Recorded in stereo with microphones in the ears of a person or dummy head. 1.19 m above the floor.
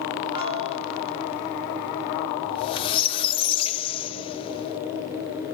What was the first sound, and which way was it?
A piano, 25° right (ahead or behind).